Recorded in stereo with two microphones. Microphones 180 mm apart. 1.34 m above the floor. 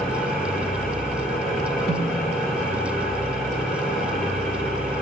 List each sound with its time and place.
0.0 s an engine running: 5° left (ahead or behind), 8 m
1.9 s a snare drum: 65° right (ahead or behind), 5 m